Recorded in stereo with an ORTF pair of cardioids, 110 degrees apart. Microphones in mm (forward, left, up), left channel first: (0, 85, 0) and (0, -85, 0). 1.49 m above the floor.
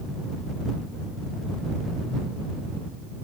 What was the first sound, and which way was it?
Only background noise.